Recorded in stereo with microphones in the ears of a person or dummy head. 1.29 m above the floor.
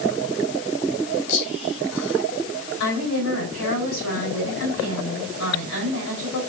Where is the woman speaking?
70° left (ahead or behind), 5 m.